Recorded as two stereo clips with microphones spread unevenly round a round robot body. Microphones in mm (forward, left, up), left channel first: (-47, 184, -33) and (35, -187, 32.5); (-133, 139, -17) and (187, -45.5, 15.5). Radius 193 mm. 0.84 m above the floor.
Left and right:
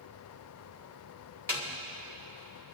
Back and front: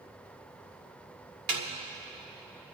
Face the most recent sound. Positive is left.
turn(degrees=20)